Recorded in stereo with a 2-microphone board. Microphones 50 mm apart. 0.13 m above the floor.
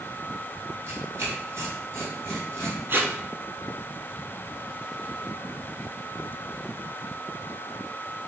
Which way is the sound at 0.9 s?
55° right (ahead or behind).